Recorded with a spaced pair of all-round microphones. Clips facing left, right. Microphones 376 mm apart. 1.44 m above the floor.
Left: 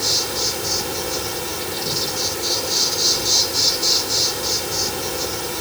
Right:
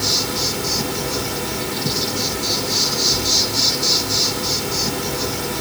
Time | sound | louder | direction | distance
0.0 | an insect | right 2 dB | 70° right (ahead or behind) | 3 m